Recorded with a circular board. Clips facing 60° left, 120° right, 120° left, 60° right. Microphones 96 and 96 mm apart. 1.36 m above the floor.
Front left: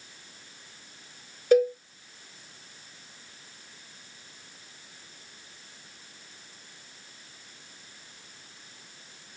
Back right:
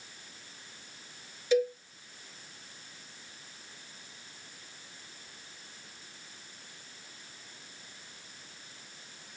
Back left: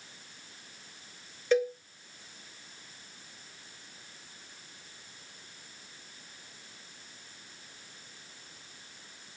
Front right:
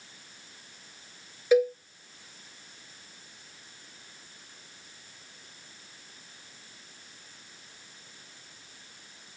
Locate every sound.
1.5 s a cowbell: 20° left, 2 m